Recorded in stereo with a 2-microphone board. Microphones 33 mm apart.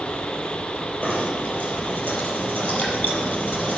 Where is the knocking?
60° left (ahead or behind), 4.5 m.